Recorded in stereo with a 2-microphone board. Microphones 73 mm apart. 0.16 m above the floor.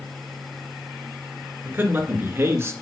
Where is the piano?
I don't hear a piano.